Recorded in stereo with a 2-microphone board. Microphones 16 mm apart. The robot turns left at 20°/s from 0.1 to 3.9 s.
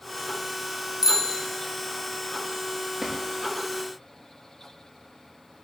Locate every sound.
1.0 s a bicycle bell: 35° right (ahead or behind), 3.5 m; by 1.4 s 45° right (ahead or behind), 3.5 m
3.0 s a drawer: 30° right (ahead or behind), 5.5 m; by 3.2 s 35° right (ahead or behind), 5.5 m